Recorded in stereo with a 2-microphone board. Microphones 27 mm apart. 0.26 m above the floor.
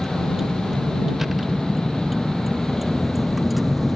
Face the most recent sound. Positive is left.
turn(degrees=0)  # may be behind; listen again after turning